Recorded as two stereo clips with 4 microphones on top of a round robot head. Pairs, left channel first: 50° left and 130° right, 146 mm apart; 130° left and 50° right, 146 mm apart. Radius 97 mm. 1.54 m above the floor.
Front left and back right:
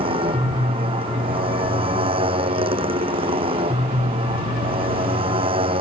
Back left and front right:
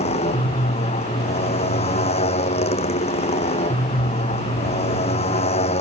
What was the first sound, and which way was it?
A motorcycle, 175° left.